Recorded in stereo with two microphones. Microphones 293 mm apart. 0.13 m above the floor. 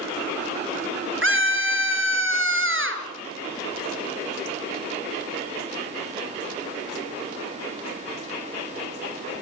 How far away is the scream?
About 3 m.